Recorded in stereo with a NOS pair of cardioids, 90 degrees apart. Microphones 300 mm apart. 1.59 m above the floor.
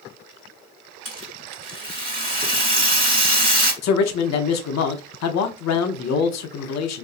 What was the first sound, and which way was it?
A rattle, 30° right.